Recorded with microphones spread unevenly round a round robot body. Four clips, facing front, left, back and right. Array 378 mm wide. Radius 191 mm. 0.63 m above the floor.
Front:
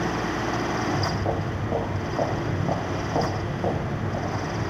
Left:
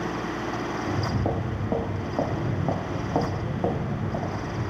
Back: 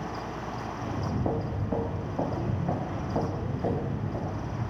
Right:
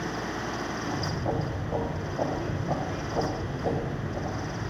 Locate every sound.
0.8 s footsteps: 115° left, 1.7 m; by 4.7 s 60° left, 2.5 m